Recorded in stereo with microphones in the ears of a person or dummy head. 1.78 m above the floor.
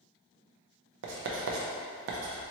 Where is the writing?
70° right (ahead or behind), 0.6 m.